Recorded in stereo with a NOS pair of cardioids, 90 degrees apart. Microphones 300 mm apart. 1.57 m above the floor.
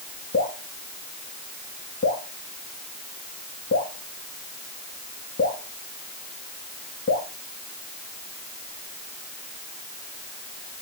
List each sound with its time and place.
0.3 s dripping: 40° left, 3.5 m